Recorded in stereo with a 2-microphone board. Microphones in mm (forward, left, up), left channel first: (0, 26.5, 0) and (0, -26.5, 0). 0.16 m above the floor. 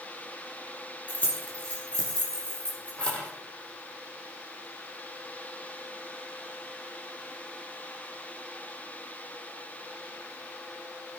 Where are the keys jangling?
25° left (ahead or behind), 3.5 m; by 3.3 s 20° left (ahead or behind), 4.5 m.